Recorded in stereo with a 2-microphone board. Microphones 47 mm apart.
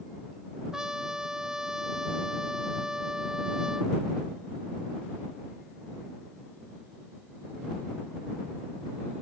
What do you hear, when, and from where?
0.7 s a trumpet: 10° right (ahead or behind)